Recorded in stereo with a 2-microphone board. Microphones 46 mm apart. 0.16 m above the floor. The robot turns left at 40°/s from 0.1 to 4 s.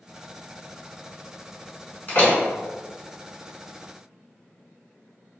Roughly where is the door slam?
Left.